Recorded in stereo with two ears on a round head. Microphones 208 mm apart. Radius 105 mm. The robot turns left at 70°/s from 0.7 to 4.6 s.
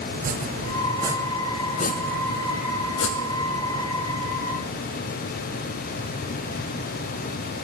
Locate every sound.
0.1 s chopping: 40° right (ahead or behind), 0.7 m; by 3.9 s 5° right (ahead or behind), 0.7 m